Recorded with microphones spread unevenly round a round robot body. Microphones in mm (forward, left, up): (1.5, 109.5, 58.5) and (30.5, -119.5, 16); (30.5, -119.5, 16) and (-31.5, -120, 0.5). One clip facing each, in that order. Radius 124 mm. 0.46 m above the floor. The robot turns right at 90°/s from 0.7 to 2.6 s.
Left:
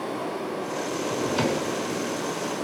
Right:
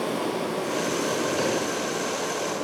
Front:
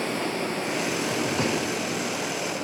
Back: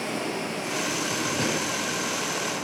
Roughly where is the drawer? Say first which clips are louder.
Even, front 2 dB; ahead left.